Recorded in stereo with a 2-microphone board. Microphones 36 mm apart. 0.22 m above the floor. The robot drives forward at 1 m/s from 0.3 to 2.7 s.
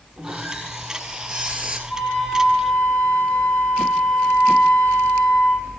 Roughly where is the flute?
Left.